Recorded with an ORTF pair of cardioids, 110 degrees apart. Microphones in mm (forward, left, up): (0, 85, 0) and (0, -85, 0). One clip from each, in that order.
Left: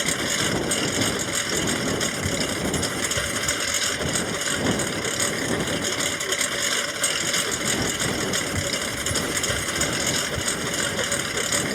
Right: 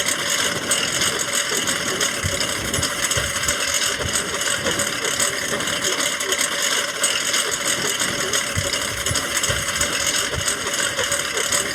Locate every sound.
0.0 s a lawn mower: 55° right